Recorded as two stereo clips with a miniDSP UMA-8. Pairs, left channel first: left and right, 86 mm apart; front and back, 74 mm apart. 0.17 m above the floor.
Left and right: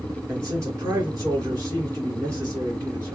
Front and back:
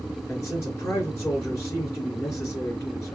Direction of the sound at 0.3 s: 40° right.